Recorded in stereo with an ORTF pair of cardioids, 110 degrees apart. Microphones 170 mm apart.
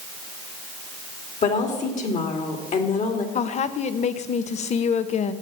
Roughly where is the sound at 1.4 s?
Ahead left.